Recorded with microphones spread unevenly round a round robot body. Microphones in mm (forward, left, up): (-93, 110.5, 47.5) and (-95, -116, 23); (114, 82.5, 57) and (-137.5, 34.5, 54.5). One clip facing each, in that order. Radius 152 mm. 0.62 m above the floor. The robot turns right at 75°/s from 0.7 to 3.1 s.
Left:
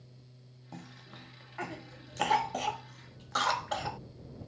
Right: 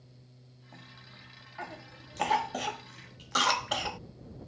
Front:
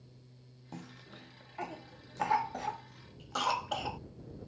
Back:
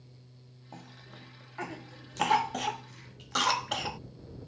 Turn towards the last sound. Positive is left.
turn(degrees=-120)